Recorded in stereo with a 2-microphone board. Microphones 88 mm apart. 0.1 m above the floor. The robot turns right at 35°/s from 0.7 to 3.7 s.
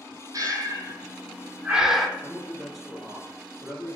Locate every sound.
0.3 s breathing: 45° right (ahead or behind), 0.6 m; by 2.1 s centre (ahead or behind), 0.6 m
2.2 s a man speaking: 10° left (ahead or behind), 1.9 m; by 4.0 s 15° right (ahead or behind), 1.9 m